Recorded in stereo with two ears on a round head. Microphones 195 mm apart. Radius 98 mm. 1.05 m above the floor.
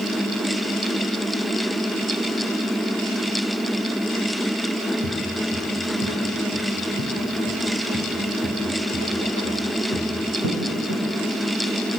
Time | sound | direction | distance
5.0 | footsteps | 70° right (ahead or behind) | 5.5 m